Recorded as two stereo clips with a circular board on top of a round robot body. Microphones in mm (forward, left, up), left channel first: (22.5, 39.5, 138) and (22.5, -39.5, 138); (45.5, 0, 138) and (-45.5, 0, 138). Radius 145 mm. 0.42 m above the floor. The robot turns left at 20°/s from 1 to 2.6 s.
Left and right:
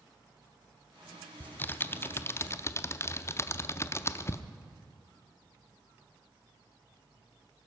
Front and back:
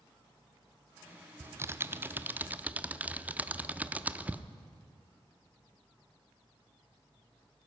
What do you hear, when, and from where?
1.4 s typing on a keyboard: 140° left, 0.7 m; by 4.4 s 115° left, 0.7 m